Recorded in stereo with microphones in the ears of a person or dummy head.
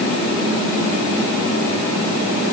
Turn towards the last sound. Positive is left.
No sound to turn to.